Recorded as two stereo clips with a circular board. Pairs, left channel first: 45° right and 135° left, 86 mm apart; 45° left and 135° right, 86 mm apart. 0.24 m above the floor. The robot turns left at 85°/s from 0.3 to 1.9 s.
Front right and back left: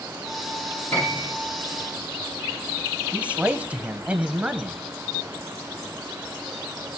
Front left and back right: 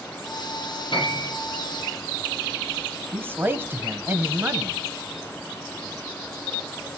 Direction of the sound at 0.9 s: 20° left.